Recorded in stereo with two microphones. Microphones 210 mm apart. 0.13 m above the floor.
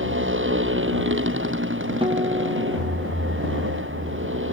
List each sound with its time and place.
0.0 s a motorcycle: 70° right (ahead or behind)
2.0 s a guitar: 25° right (ahead or behind)